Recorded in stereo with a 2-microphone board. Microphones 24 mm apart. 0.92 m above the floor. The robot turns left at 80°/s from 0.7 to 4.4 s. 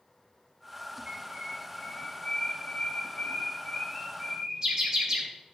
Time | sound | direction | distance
1.1 | a bird | 50° right (ahead or behind) | 5 m